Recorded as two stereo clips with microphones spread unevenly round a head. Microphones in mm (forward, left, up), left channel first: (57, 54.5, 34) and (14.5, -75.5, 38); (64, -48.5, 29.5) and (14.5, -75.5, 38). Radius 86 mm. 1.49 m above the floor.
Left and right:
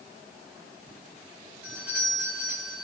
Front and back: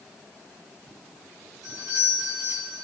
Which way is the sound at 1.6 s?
170° left.